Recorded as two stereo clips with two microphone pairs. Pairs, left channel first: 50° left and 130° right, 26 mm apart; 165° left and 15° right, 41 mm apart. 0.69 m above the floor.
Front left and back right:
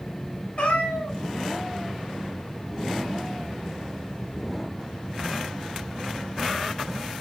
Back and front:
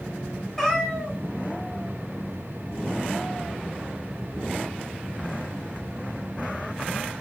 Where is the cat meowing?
80° left, 1.0 m.